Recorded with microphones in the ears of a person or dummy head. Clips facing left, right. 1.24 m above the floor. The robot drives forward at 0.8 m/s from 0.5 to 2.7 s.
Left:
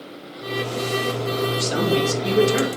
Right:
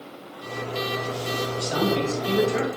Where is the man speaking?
30° left (ahead or behind), 1.3 m; by 2.7 s 60° left (ahead or behind), 0.7 m.